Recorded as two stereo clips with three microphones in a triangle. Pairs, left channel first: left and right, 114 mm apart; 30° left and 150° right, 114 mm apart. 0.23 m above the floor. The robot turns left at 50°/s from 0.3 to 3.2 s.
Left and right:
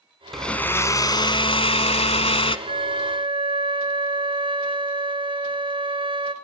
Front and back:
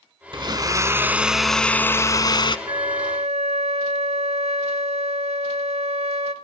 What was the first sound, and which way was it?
A blender, 175° left.